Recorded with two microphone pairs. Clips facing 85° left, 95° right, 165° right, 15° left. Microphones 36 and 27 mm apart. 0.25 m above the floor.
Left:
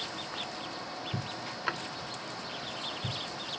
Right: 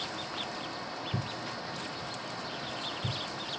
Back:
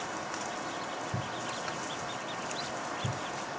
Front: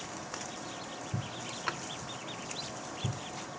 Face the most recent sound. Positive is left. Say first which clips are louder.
# left 6 dB, front 1 dB
turn(degrees=75)